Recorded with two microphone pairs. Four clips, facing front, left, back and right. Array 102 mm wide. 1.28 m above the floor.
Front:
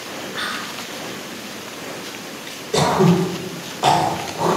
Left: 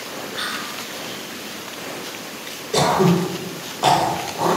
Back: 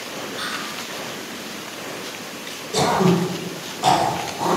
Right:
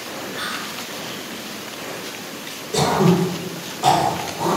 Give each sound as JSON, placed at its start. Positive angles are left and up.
{"t": 0.3, "sound": "whispering", "azimuth_deg": 15, "distance_m": 0.7}
{"t": 2.7, "sound": "throat clearing", "azimuth_deg": 50, "distance_m": 0.7}